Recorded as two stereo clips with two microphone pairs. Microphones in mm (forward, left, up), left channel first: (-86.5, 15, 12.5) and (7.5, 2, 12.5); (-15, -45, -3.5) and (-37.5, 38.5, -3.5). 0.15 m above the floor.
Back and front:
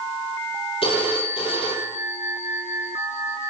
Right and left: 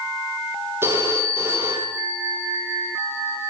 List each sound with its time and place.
0.8 s a phone ringing: 165° left, 4.5 m